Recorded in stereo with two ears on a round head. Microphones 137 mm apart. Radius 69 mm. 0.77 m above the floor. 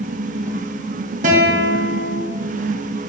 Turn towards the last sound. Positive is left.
turn(degrees=-55)  # may be behind; listen again after turning